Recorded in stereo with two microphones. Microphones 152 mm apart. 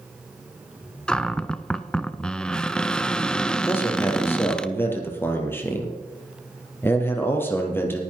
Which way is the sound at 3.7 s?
15° left (ahead or behind).